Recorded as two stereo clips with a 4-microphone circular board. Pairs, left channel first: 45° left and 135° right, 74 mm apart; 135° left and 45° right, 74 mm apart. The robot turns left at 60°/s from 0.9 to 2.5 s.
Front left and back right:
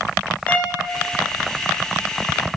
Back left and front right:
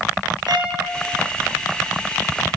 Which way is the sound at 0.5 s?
30° right.